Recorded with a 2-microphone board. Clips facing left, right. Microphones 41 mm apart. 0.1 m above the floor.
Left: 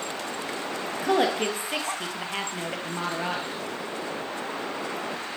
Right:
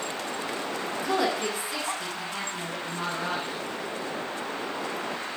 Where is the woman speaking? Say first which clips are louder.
Left 4 dB; 55° left (ahead or behind), 2.5 m.